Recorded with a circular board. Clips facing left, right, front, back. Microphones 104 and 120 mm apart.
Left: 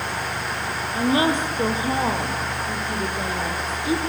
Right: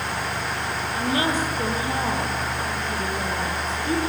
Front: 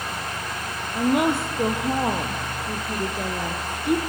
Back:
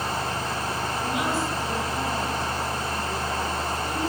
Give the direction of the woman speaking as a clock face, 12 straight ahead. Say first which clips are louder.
Left 4 dB, front 8 dB; 11 o'clock.